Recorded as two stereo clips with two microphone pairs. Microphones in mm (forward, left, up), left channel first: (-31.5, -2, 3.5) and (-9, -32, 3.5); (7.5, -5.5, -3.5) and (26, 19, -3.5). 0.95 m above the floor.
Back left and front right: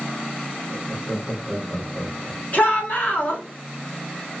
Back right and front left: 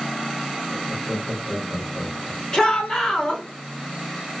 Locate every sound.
0.7 s laughter: 170° left, 1.0 m
2.5 s a shout: 170° left, 1.4 m